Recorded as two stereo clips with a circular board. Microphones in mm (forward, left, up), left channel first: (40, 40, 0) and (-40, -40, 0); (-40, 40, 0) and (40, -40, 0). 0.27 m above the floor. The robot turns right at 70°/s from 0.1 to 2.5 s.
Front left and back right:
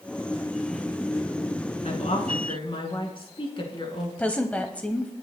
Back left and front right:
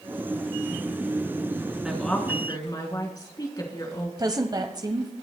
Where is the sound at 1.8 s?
35° left, 3 m; by 4.1 s 80° left, 3 m.